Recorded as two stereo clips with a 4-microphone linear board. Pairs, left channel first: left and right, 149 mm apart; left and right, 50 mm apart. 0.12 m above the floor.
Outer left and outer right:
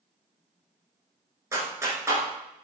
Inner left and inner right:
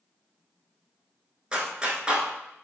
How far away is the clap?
About 1.1 m.